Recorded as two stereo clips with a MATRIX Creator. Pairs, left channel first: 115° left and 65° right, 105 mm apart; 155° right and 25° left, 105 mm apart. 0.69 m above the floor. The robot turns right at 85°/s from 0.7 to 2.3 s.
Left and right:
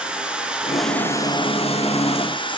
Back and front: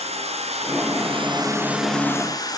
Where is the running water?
15° left, 4.5 m; by 2.6 s 150° left, 4.5 m.